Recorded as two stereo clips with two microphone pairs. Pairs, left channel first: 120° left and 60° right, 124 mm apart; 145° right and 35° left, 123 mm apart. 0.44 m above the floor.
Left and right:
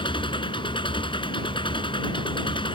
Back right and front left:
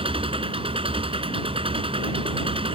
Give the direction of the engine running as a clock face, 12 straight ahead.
10 o'clock.